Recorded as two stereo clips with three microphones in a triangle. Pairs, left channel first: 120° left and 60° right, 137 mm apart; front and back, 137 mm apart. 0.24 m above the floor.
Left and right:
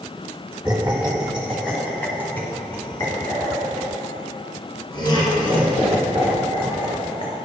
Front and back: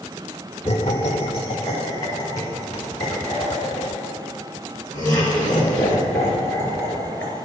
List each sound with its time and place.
0.7 s laughter: 10° left, 1.7 m; by 7.4 s 80° left, 4 m